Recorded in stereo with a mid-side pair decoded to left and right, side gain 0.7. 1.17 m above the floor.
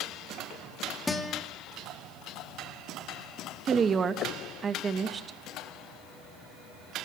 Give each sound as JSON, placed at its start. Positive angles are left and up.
{"t": 1.1, "sound": "a guitar", "azimuth_deg": 15, "distance_m": 3.0}
{"t": 3.6, "sound": "a woman speaking", "azimuth_deg": -30, "distance_m": 1.7}